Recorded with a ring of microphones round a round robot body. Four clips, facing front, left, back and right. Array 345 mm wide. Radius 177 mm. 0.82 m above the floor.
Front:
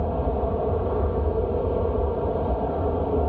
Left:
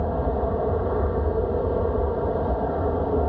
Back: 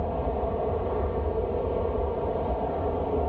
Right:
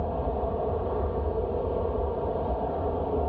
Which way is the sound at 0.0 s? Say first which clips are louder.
Left 4 dB, front 3 dB; 50° left.